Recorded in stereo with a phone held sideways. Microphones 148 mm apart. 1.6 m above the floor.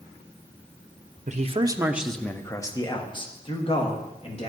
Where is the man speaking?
55° right (ahead or behind), 0.7 m; by 4.5 s 45° left (ahead or behind), 2.5 m.